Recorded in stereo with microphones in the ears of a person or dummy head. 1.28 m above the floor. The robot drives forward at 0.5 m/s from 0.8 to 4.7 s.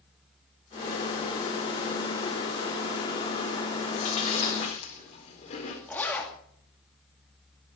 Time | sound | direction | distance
3.9 | chewing | 35° left (ahead or behind) | 3.5 m
5.9 | a zipper | 5° left (ahead or behind) | 2.5 m